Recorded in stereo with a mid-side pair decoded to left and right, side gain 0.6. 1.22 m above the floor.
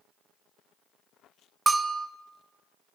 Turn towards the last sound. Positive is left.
turn(degrees=-20)